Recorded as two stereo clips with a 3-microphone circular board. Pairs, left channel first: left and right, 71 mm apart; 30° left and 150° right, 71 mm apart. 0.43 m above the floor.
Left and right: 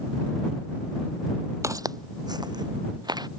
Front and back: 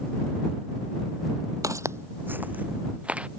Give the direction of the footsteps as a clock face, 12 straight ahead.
4 o'clock.